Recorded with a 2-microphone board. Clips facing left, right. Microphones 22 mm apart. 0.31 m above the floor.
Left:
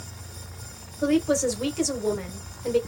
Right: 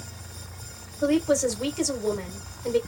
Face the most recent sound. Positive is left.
turn(degrees=5)  # may be behind; listen again after turning